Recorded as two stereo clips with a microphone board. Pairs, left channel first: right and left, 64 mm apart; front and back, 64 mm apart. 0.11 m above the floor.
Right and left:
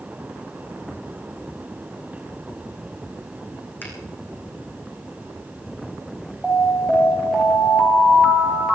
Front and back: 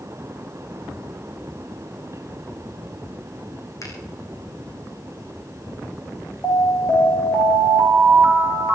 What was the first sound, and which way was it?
A finger snap, 30° right.